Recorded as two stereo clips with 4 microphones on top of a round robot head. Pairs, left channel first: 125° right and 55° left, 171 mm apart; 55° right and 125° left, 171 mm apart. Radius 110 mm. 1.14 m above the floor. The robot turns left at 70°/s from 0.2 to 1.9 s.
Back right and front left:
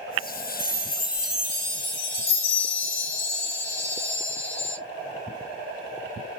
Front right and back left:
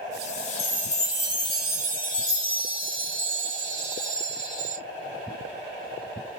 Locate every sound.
0.6 s a chime: 80° right, 2 m; by 4.8 s 170° right, 2 m